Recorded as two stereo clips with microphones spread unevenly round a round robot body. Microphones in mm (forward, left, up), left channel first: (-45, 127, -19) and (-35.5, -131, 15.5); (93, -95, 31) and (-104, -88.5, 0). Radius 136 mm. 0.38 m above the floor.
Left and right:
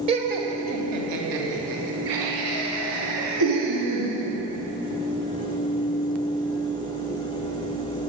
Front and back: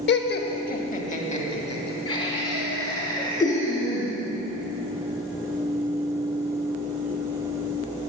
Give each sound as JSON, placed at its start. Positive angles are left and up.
{"t": 0.1, "sound": "laughter", "azimuth_deg": -15, "distance_m": 1.3}